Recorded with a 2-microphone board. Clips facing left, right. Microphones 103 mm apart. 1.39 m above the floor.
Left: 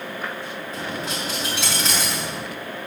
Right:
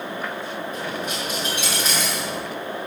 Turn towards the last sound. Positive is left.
turn(degrees=75)  # may be behind; listen again after turning